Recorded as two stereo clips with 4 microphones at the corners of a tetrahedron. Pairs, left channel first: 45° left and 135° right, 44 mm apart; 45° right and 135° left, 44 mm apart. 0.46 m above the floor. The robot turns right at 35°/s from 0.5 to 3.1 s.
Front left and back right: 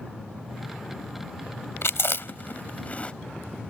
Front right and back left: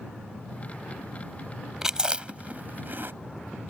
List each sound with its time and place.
1.8 s chewing: 60° left; by 3.1 s 105° left